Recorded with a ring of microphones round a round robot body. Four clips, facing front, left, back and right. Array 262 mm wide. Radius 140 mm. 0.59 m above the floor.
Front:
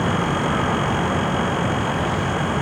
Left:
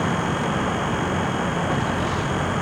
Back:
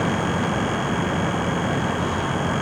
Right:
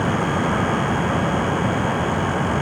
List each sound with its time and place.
Only background noise.